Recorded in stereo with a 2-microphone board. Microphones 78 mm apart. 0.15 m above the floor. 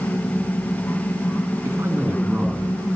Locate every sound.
1.6 s a man speaking: 40° right (ahead or behind), 2 m; by 2.8 s centre (ahead or behind), 1.9 m